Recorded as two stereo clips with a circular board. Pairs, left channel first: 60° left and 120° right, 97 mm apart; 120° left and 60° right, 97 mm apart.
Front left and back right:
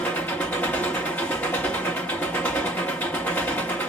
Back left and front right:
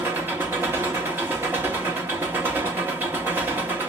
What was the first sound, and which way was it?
An engine running, straight ahead.